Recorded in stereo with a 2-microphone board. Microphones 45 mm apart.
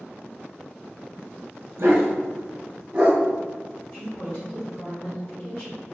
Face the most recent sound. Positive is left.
turn(degrees=55)  # may be behind; listen again after turning